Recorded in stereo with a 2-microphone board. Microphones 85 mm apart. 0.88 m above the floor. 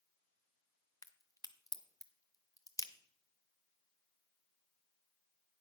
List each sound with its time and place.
1.0 s a crack: 40° left (ahead or behind), 0.8 m